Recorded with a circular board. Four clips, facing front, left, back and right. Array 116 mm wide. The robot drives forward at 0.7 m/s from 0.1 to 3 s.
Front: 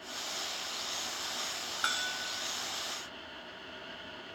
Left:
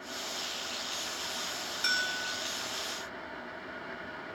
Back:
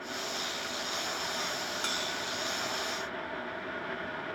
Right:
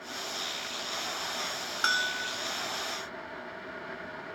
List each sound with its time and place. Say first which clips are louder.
1.8 s a bell: right 3 dB, back 1 dB; 75° right, 0.7 m; by 2.4 s 110° right, 0.7 m